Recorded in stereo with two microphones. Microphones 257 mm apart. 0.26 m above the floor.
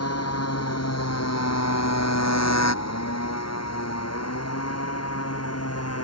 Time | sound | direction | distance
0.0 | a motorcycle | 70° left (ahead or behind) | ?